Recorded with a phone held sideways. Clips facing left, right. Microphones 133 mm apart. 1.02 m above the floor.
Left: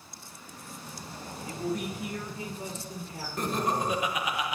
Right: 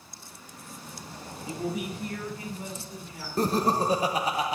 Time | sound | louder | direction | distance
1.5 | a man speaking | even | 25° right (ahead or behind) | 1.4 m
3.4 | laughter | right 5 dB | 35° right (ahead or behind) | 0.9 m